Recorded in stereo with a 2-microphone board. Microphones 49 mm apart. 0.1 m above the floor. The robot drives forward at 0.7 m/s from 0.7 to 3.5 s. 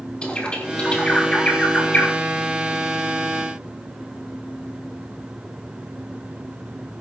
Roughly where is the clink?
No clink in this recording.